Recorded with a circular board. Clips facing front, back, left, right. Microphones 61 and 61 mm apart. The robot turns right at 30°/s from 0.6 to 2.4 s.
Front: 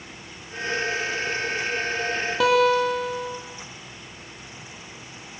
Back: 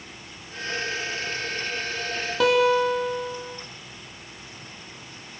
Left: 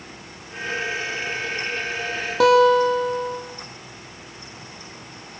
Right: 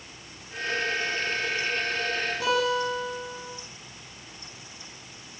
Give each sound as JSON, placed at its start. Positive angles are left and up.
{"t": 2.4, "sound": "a guitar", "azimuth_deg": 90, "distance_m": 5.5}